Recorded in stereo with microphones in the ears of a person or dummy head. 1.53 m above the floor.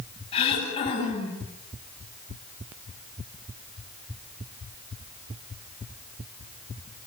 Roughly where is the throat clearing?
Left.